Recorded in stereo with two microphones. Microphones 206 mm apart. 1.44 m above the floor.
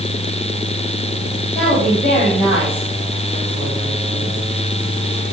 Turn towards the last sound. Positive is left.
turn(degrees=10)  # may be behind; listen again after turning